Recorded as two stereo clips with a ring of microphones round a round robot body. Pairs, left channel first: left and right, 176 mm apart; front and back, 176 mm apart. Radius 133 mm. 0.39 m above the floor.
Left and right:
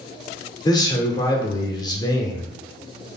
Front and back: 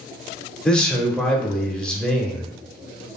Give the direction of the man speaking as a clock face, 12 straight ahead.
9 o'clock.